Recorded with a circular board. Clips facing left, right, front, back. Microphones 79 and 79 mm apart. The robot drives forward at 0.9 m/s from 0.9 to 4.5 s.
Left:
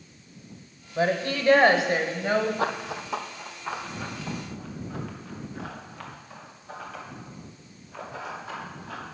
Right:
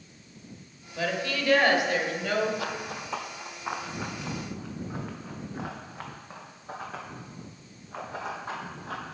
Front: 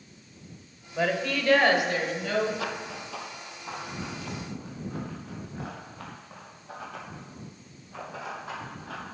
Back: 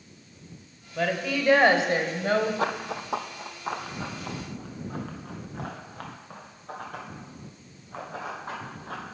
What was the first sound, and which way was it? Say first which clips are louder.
A woman speaking: left 5 dB, even; 75° left.